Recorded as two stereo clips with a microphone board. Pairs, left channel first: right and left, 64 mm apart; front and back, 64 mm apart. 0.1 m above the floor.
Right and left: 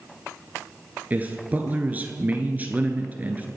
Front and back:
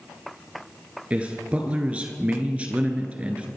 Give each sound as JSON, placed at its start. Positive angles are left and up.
{"t": 1.1, "sound": "a man speaking", "azimuth_deg": 125, "distance_m": 1.5}